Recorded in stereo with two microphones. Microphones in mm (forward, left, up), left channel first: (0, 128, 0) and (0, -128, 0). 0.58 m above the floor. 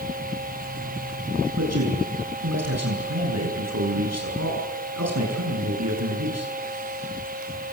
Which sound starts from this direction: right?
A man speaking, at 1.6 s.